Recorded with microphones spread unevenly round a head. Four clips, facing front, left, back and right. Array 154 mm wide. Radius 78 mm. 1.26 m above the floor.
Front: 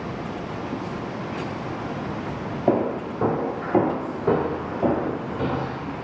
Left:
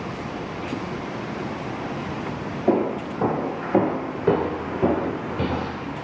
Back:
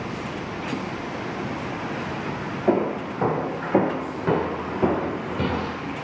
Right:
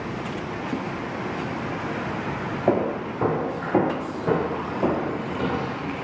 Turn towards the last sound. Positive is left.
turn(degrees=135)